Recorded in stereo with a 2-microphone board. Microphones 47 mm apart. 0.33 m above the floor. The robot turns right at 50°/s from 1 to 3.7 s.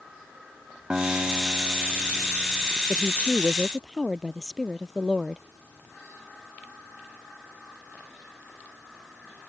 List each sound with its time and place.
0.9 s a guitar: 160° right; by 2.7 s 75° right
2.9 s a woman speaking: 145° left; by 5.4 s 175° right